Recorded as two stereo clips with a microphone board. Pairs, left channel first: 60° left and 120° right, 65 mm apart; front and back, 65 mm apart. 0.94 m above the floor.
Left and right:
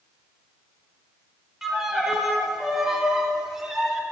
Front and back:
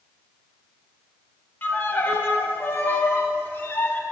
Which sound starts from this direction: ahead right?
A violin, at 1.6 s.